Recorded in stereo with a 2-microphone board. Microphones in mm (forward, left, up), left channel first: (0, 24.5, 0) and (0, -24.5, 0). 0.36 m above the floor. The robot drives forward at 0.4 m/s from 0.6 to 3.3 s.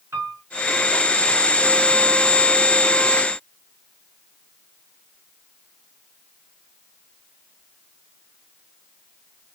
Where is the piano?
70° right (ahead or behind), 3 m.